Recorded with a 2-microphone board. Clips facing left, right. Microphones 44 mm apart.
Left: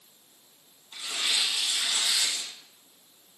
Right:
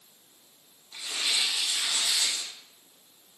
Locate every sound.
0.9 s tearing paper: 65° left (ahead or behind), 4.5 m